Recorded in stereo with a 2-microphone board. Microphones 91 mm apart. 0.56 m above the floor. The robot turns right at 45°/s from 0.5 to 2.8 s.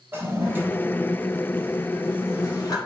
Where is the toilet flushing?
25° right (ahead or behind), 0.5 m; by 2.8 s 40° left (ahead or behind), 0.5 m.